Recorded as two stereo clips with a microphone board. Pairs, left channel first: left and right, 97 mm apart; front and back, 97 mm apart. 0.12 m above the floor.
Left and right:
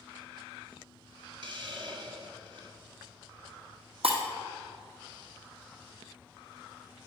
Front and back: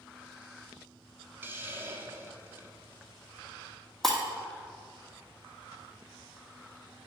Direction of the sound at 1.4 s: 115° right.